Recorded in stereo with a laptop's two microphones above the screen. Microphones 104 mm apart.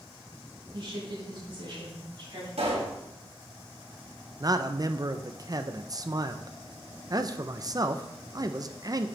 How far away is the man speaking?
About 0.6 m.